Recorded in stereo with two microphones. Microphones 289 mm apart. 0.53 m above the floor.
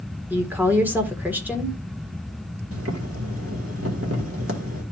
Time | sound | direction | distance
0.3 | a woman speaking | 5° right (ahead or behind) | 1.7 m
2.7 | boiling | 50° right (ahead or behind) | 1.7 m